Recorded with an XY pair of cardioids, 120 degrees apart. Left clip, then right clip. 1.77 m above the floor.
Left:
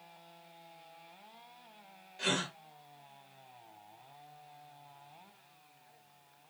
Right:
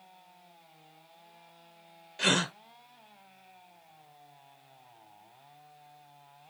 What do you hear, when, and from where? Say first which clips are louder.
2.2 s a gasp: right 6 dB; 50° right, 0.9 m